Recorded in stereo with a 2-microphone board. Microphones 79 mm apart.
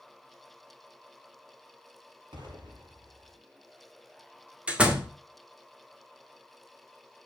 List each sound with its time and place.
2.3 s an explosion: 65° right (ahead or behind), 5.5 m
4.7 s a door slam: 15° right (ahead or behind), 1.9 m